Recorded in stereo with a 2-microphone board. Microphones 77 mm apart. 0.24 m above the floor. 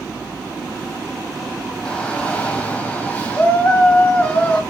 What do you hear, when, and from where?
1.9 s a shout: 15° left (ahead or behind), 1.1 m; by 4.6 s 20° left (ahead or behind), 1.7 m